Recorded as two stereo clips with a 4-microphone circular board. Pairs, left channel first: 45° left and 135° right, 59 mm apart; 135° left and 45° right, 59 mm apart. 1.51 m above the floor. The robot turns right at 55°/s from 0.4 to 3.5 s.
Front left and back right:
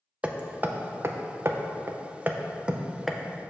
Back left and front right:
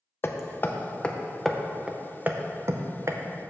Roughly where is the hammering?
Behind.